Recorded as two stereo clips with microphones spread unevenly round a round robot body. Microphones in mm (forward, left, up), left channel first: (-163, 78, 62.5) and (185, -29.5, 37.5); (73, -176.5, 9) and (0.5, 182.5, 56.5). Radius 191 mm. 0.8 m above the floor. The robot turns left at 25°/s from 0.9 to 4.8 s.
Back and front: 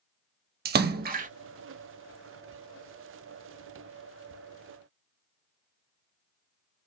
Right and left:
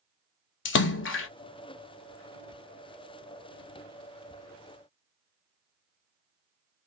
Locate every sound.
0.7 s a splash: 60° right, 0.6 m; by 1.3 s 70° right, 0.6 m